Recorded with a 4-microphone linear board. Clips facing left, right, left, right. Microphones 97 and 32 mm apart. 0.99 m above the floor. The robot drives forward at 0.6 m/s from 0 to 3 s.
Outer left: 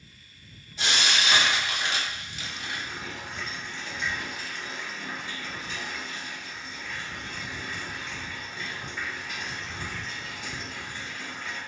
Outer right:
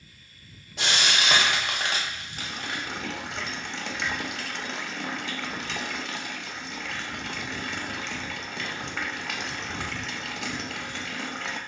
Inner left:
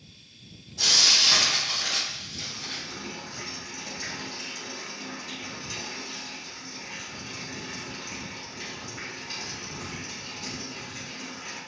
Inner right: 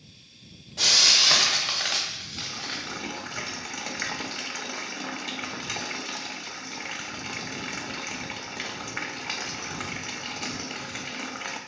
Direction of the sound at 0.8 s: 75° right (ahead or behind).